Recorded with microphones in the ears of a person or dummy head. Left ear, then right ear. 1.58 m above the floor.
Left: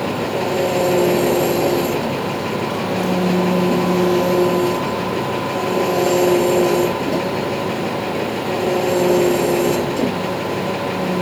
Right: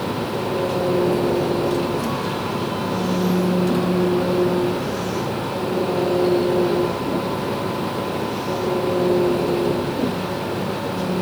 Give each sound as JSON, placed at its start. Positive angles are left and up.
{"t": 0.0, "sound": "an engine running", "side_deg": 60}